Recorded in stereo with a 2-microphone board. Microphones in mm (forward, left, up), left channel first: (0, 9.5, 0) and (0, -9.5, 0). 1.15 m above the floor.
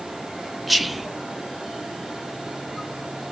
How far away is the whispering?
About 0.6 m.